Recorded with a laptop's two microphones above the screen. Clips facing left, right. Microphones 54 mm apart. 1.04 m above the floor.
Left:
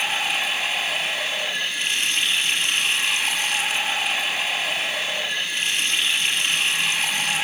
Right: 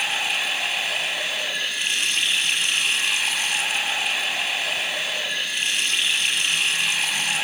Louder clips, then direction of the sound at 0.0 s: Left 1 dB; centre (ahead or behind).